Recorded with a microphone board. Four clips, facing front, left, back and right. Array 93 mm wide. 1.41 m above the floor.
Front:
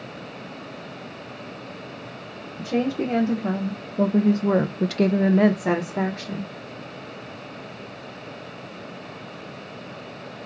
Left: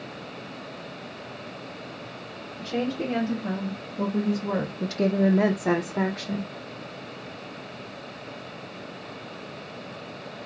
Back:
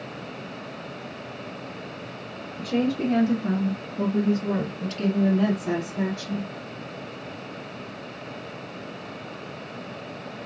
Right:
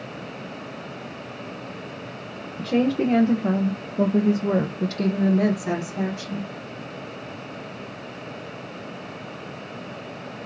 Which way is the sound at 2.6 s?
75° right.